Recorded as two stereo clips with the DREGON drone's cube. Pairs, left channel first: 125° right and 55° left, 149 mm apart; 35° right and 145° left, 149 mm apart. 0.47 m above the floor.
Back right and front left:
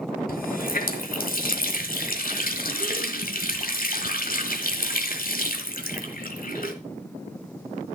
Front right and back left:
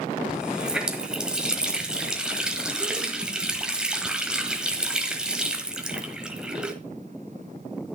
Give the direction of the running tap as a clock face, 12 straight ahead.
4 o'clock.